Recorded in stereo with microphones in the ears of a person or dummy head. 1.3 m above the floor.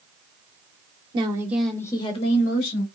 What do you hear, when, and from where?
1.1 s a woman speaking: 30° right (ahead or behind), 0.8 m; by 2.9 s 50° left (ahead or behind), 1.3 m